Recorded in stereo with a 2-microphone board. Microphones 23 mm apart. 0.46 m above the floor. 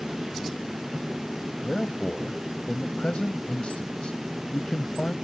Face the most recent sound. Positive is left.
turn(degrees=55)  # may be behind; listen again after turning